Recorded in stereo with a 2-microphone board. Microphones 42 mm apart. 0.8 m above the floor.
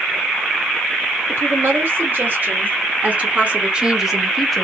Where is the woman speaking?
60° right (ahead or behind), 2.5 m; by 4.7 s 10° left (ahead or behind), 1.1 m.